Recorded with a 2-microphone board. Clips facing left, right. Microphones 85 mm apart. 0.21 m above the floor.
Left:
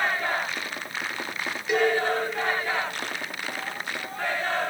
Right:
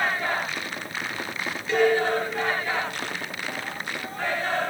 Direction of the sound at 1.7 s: 15° left (ahead or behind).